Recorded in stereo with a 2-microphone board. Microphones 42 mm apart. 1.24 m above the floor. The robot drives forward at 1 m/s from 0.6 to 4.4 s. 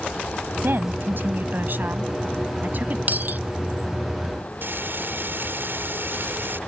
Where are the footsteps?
No footsteps in this recording.